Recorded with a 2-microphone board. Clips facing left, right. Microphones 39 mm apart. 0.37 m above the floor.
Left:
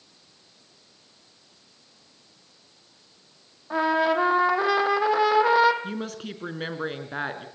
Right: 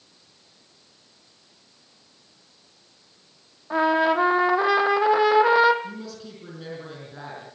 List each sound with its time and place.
3.7 s a trumpet: 10° right (ahead or behind), 2.5 m
5.8 s a woman speaking: 55° left (ahead or behind), 5 m